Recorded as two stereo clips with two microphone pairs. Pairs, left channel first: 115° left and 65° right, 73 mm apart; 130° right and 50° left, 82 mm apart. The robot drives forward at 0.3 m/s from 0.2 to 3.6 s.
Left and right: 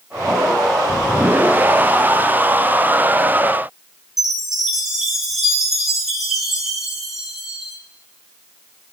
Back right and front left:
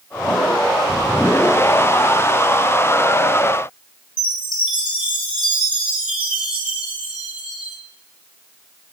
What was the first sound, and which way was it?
A chime, 150° right.